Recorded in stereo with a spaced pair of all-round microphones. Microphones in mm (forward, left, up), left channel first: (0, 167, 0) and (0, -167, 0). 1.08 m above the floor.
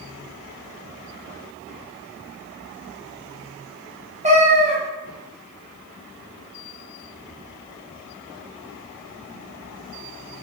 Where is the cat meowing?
20° right (ahead or behind), 0.5 m.